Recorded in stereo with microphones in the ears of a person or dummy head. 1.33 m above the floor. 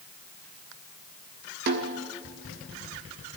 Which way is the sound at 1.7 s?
50° right (ahead or behind).